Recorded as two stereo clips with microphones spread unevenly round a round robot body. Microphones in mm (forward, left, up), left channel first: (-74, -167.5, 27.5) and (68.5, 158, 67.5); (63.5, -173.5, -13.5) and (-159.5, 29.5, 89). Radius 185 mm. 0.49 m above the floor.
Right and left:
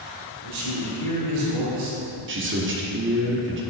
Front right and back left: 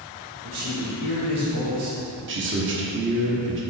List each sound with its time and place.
0.4 s a man speaking: 85° left, 2.5 m
2.3 s a man speaking: 90° left, 1.3 m